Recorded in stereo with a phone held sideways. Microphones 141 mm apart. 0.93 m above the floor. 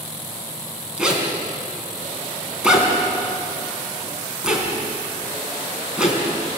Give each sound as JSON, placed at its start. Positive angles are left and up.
{"t": 1.0, "sound": "a zipper", "side_deg": -5, "distance_m": 4.5}